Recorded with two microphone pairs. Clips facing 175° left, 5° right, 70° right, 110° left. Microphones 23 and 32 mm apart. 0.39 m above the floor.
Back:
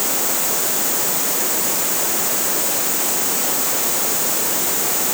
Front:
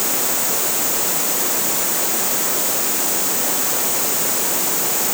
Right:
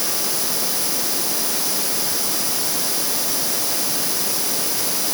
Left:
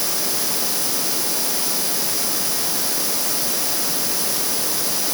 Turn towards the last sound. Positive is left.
No sound to turn to.